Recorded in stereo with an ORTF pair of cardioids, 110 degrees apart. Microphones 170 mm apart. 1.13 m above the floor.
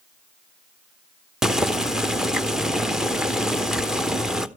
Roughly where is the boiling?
Ahead.